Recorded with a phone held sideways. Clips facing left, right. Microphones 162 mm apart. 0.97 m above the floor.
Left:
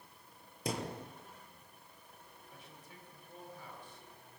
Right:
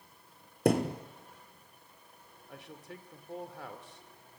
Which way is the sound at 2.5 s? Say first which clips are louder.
Right 11 dB; 75° right (ahead or behind).